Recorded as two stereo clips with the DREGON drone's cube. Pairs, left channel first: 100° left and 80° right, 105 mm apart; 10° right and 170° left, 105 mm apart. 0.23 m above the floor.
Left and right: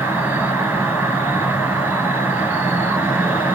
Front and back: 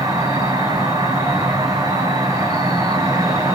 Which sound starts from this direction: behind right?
An insect, at 0.0 s.